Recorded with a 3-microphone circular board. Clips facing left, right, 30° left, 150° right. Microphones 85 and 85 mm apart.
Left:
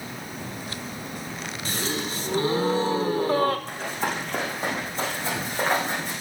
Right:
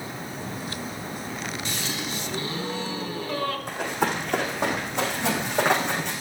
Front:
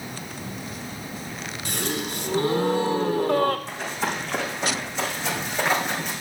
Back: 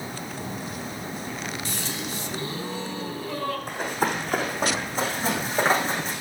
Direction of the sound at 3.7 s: 115° right.